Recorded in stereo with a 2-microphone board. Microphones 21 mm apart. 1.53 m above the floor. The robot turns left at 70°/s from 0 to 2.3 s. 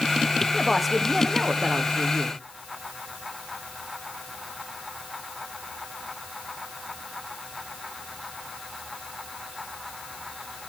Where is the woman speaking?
15° left, 0.6 m; by 2.4 s 105° right, 0.6 m.